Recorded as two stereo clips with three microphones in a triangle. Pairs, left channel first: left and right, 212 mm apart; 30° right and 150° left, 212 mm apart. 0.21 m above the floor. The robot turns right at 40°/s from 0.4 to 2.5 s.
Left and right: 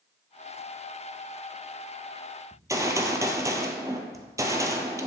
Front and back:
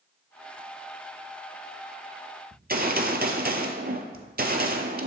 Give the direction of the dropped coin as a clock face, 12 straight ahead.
No dropped coin in this recording.